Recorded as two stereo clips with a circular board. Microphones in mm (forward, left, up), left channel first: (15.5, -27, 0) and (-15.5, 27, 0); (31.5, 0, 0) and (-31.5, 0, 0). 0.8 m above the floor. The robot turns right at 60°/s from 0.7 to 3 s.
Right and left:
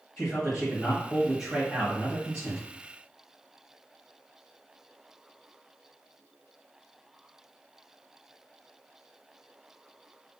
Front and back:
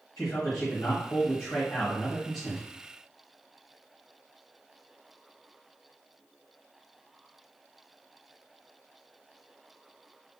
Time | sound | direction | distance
0.2 | a man speaking | 10° right | 1.1 m